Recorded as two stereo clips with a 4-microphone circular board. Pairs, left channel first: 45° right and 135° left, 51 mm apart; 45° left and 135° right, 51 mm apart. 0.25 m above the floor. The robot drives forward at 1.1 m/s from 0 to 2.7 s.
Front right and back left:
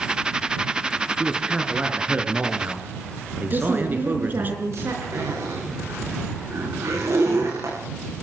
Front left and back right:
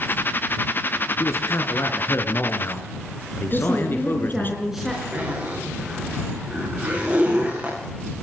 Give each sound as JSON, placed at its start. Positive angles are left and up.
{"t": 1.2, "sound": "a man speaking", "azimuth_deg": 65, "distance_m": 4.0}
{"t": 3.5, "sound": "a woman speaking", "azimuth_deg": 140, "distance_m": 3.5}
{"t": 5.1, "sound": "a zipper", "azimuth_deg": 160, "distance_m": 10.0}